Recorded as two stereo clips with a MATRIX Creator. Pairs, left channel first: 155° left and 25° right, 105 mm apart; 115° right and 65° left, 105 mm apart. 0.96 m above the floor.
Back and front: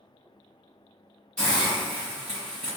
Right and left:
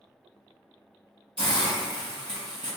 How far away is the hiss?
About 1.7 m.